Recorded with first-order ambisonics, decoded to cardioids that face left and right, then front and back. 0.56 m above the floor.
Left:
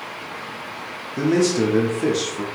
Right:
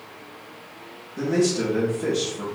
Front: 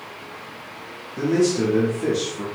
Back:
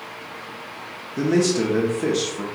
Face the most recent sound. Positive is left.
turn(degrees=125)